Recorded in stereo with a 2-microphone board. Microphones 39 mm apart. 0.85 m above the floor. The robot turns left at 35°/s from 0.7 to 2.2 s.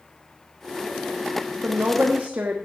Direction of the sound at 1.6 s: 70° right (ahead or behind).